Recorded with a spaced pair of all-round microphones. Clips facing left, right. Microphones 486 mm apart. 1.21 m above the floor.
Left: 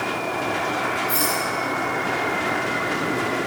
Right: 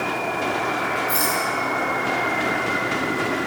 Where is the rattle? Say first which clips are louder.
Even; centre (ahead or behind), 4.5 m.